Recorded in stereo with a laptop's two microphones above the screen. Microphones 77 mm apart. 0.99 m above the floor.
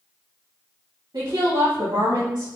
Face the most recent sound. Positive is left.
turn(degrees=-70)  # may be behind; listen again after turning